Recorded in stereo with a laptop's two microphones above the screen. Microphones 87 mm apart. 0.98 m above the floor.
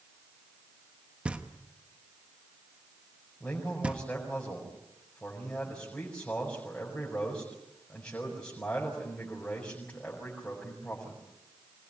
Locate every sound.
1.2 s knocking: 15° right (ahead or behind), 1.1 m
3.4 s a man speaking: 20° left (ahead or behind), 5 m